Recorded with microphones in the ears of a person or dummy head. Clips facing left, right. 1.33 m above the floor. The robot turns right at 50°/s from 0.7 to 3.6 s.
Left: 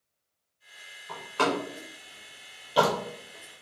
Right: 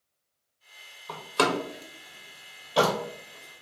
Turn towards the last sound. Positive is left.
turn(degrees=35)  # may be behind; listen again after turning